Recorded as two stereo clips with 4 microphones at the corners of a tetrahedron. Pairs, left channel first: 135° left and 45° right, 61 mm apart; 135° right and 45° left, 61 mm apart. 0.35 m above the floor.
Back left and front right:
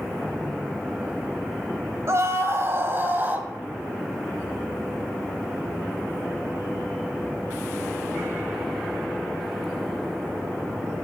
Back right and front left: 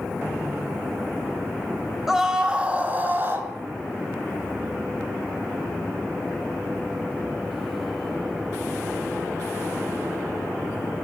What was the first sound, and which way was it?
A scream, 35° right.